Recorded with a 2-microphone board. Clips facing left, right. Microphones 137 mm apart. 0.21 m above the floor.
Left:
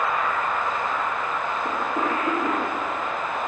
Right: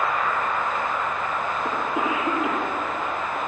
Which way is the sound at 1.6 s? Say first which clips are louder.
Even; 10° right (ahead or behind).